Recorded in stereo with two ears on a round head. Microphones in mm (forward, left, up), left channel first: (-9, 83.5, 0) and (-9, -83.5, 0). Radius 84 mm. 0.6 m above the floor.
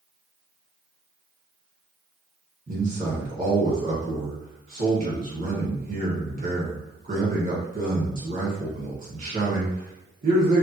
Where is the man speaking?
45° right (ahead or behind), 1.6 m.